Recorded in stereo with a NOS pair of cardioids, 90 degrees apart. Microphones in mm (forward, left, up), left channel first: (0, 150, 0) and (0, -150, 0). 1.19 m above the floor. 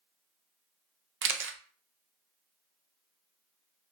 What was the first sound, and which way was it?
A camera shutter, 45° right.